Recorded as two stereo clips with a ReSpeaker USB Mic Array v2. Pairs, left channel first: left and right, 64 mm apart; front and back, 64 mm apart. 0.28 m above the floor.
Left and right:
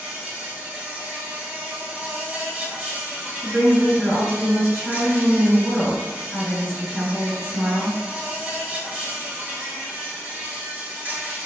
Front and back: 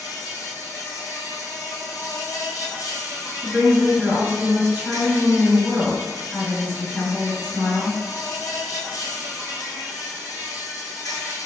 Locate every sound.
0.0 s an insect: 25° right, 0.8 m
3.4 s a woman speaking: 115° right, 1.9 m